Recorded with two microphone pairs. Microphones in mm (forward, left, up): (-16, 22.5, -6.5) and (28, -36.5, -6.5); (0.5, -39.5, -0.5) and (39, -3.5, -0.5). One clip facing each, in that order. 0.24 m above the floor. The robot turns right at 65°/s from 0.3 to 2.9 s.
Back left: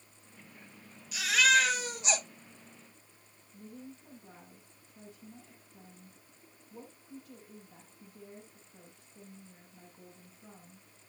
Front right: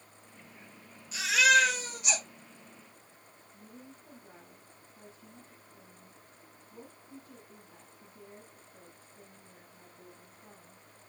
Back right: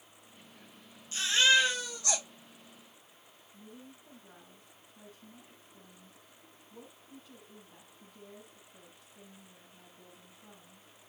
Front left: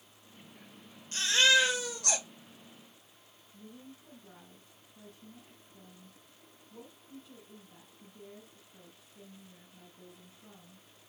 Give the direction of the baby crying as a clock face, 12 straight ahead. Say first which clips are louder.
Front right 2 dB, even; 12 o'clock.